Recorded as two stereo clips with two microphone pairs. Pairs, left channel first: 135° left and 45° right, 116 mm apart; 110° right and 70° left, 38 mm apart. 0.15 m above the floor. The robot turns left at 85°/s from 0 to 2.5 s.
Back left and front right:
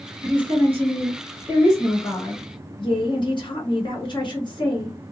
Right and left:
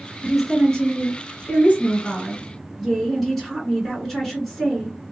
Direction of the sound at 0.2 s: 5° right.